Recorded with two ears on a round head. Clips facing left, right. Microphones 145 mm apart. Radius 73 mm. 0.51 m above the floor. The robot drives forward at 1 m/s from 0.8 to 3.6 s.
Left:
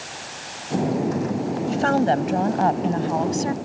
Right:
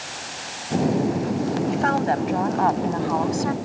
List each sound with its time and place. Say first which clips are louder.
1.7 s a woman speaking: left 5 dB; 45° left (ahead or behind); by 3.6 s 30° left (ahead or behind)